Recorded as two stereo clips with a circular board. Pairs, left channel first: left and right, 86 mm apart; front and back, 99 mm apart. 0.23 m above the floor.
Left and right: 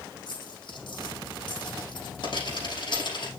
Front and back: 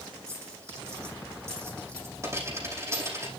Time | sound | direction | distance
0.3 | a dropped coin | 120° left | 5.5 m